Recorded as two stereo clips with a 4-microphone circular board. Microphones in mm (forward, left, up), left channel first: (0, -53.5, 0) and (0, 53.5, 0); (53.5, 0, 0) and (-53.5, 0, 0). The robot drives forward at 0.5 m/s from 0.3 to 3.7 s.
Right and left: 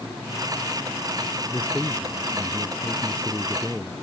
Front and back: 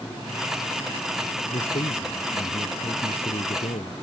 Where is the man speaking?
10° right; by 3.9 s 15° right.